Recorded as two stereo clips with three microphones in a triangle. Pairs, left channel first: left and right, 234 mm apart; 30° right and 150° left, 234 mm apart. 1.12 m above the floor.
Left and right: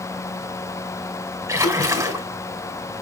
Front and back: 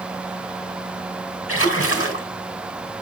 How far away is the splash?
About 3 m.